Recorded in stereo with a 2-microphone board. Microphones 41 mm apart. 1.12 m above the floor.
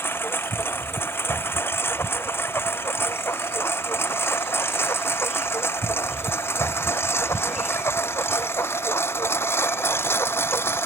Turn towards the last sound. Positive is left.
turn(degrees=75)  # may be behind; listen again after turning